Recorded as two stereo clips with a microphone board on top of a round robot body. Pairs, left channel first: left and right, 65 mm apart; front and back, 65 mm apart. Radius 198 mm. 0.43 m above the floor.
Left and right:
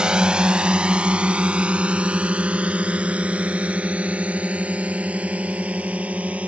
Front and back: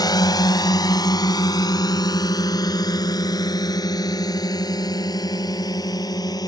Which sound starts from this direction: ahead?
A drone, at 0.0 s.